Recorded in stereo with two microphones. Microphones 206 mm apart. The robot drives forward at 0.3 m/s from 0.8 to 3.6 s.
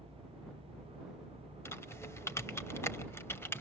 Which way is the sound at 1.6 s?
10° left (ahead or behind).